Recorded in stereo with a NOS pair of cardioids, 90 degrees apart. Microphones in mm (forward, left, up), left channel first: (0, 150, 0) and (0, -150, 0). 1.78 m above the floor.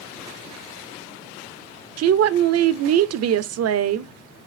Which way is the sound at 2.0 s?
55° right.